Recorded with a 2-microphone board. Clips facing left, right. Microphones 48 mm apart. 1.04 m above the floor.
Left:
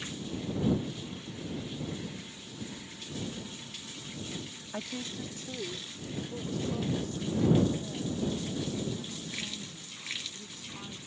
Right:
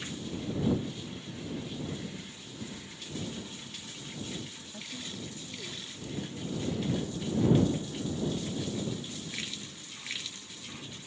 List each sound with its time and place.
4.7 s a woman speaking: 60° left (ahead or behind); by 11.0 s 50° left (ahead or behind)